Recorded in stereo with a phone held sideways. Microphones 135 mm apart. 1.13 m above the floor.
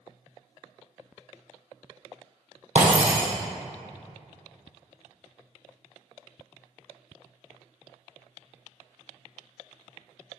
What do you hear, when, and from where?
2.8 s breaking glass: 65° right (ahead or behind), 3 m